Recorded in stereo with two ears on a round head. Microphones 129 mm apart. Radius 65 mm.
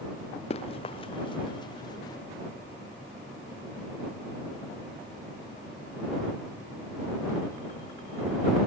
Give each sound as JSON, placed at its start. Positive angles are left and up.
{"t": 0.5, "sound": "running footsteps", "side_deg": 45}